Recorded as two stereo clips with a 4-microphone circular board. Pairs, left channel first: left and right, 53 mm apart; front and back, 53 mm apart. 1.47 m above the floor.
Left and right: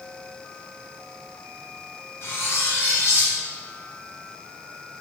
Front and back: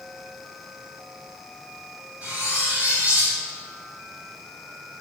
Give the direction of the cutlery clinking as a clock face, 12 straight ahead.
8 o'clock.